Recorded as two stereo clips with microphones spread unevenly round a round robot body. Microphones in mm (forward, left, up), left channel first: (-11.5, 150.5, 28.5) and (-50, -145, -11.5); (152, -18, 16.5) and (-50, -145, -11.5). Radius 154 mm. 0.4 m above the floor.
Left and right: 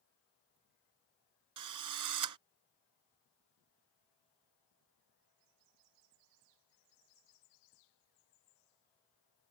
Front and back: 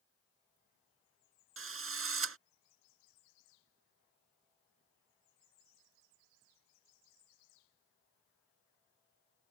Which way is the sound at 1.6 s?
120° right.